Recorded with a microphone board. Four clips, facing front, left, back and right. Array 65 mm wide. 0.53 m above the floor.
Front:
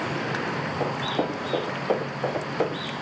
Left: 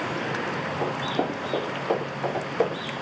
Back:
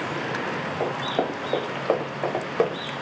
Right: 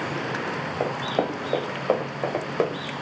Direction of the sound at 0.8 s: 120° right.